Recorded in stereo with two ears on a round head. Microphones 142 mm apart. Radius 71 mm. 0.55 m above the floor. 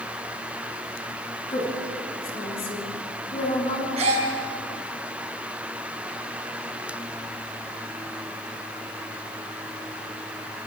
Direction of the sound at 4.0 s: 40° right (ahead or behind).